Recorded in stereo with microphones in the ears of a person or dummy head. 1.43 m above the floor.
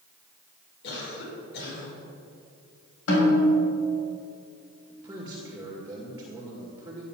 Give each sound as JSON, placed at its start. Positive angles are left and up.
{"t": 0.8, "sound": "a cough", "side_deg": 70, "distance_m": 5.5}
{"t": 3.1, "sound": "a snare drum", "side_deg": 85, "distance_m": 5.5}
{"t": 4.9, "sound": "a man speaking", "side_deg": -10, "distance_m": 2.0}